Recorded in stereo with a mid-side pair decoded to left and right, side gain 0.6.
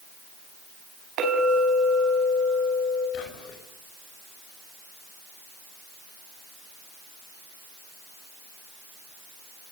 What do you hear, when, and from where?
1.2 s a clink: 55° right, 6 m
3.1 s whispering: 65° left, 5 m